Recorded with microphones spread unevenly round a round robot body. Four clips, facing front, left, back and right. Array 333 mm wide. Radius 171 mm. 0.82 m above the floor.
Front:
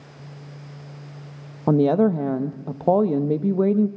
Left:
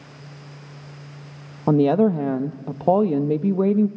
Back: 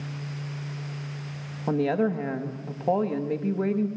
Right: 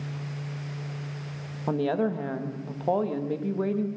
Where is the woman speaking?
65° left, 0.9 m.